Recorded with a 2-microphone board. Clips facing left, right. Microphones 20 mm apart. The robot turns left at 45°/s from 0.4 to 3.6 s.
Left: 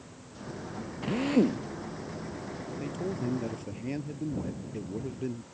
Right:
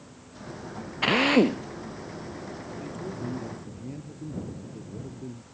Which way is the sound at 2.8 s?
165° left.